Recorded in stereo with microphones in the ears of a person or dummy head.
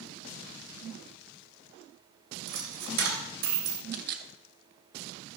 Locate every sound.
2.5 s a dropped coin: 60° right (ahead or behind), 3 m
3.9 s a camera shutter: 55° right (ahead or behind), 1.3 m